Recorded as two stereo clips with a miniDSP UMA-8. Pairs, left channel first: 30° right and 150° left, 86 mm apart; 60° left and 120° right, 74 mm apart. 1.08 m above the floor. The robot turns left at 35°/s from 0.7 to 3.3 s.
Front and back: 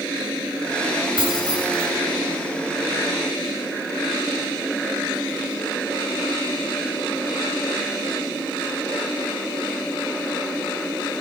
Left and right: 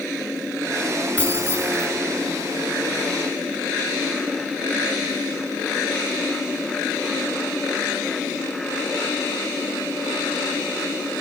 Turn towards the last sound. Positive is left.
turn(degrees=55)